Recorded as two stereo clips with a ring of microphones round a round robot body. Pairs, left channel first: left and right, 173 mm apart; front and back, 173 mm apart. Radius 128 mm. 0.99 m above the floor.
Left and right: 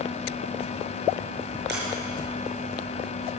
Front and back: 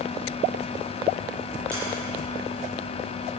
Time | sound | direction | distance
1.7 | a sliding door | 85° right | 6.5 m